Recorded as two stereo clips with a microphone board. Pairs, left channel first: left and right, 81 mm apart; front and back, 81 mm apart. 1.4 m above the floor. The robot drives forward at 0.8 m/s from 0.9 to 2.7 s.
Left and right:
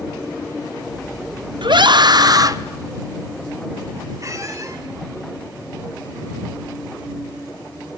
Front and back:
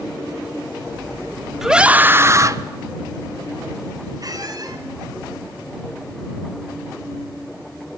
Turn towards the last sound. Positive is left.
turn(degrees=-140)